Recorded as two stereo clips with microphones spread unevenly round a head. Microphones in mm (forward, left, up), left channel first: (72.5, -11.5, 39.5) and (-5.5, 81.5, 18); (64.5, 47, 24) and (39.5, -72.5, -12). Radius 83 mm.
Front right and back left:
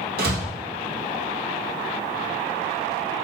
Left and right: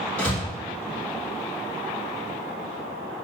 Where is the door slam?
155° left, 1.7 m.